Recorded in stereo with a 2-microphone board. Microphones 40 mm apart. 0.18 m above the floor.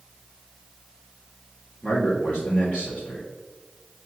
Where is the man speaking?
30° left (ahead or behind), 1.9 m.